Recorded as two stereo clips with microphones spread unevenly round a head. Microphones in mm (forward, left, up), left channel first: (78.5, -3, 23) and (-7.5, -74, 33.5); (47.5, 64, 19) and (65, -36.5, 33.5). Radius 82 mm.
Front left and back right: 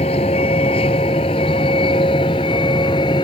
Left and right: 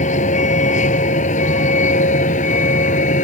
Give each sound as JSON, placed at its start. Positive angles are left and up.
{"t": 0.0, "sound": "a vehicle", "azimuth_deg": 95}